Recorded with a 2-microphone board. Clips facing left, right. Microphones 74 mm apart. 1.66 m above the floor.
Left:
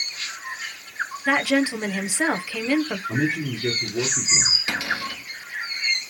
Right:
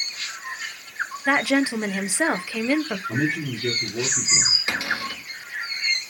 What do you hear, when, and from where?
1.3 s a woman speaking: 15° right (ahead or behind), 0.9 m
3.1 s a man speaking: 15° left (ahead or behind), 4 m
4.7 s a cupboard door: 30° right (ahead or behind), 3.5 m